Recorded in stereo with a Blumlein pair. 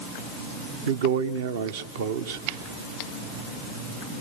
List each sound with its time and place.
0.9 s a man speaking: 55° right, 1.0 m